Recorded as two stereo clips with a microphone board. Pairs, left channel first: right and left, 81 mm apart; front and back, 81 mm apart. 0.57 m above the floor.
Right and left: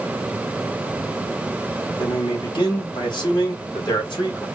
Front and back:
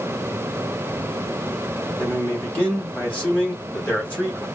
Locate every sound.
2.0 s a man speaking: 70° right, 3 m